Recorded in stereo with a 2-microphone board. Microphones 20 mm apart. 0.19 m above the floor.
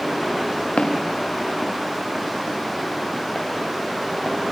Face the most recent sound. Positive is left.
turn(degrees=25)  # may be behind; listen again after turning